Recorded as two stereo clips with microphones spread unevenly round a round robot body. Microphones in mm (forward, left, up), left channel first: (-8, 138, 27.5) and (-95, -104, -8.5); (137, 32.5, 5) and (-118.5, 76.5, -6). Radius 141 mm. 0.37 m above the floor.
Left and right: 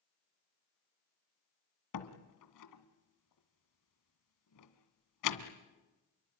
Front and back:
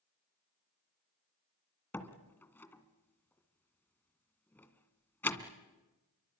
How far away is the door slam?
About 2 m.